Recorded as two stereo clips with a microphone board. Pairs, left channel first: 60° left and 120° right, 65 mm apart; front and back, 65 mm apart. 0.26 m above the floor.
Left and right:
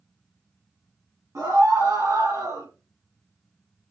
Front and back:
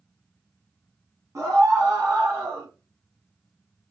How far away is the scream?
About 2.5 m.